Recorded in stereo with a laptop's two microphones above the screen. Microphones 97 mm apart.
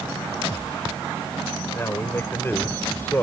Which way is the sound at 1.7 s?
25° left (ahead or behind).